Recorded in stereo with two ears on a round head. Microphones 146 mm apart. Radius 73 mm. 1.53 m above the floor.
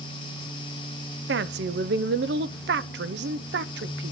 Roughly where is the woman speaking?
Right.